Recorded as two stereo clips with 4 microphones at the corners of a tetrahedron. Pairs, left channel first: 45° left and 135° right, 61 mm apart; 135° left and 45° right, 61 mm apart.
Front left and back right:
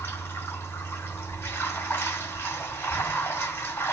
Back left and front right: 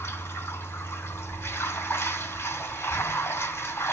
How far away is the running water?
About 2.5 m.